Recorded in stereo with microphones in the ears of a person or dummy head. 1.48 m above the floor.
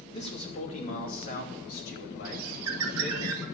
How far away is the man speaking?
About 2.5 m.